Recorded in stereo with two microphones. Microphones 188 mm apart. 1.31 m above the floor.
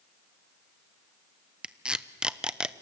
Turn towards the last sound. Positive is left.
turn(degrees=-5)  # may be behind; listen again after turning